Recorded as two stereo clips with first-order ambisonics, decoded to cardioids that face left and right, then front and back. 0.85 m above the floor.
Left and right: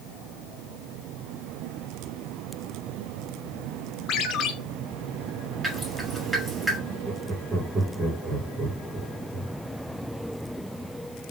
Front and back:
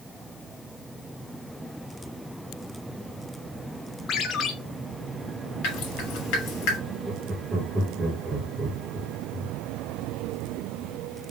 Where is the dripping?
10° right, 2 m.